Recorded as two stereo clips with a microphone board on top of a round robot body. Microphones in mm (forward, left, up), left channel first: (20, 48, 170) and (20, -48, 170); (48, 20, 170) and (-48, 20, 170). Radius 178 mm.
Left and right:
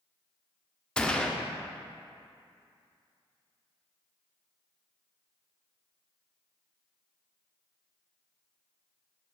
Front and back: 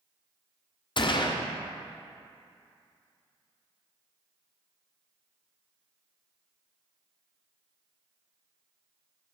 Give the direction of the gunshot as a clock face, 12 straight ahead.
12 o'clock.